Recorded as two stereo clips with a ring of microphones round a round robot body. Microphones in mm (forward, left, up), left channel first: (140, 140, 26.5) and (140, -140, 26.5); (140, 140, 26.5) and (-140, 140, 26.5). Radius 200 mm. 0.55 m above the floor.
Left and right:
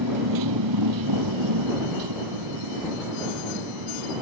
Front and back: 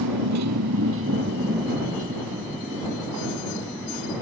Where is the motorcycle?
135° right; by 4.2 s 90° right.